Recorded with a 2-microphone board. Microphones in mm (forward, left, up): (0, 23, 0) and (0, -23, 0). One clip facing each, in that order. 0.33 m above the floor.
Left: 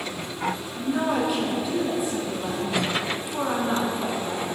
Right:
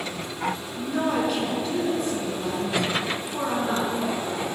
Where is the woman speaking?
10° left (ahead or behind), 4 m.